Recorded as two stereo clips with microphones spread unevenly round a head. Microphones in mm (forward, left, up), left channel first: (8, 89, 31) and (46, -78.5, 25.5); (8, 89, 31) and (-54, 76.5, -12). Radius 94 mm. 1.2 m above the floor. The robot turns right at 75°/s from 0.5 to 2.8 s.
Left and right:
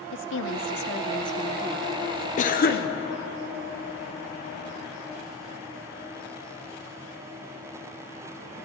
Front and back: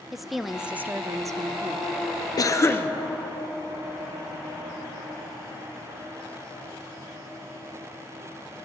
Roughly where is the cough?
Ahead left.